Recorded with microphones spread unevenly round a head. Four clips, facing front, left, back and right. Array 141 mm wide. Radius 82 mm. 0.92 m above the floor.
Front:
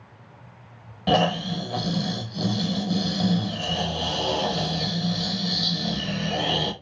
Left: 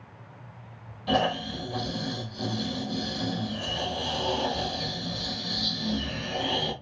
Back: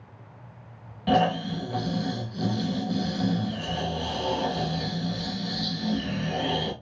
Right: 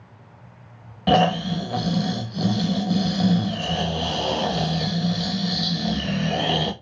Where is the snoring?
70° right, 0.9 m.